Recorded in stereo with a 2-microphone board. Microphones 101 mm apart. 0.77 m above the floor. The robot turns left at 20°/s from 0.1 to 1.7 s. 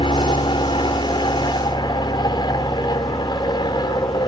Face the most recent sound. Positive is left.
turn(degrees=55)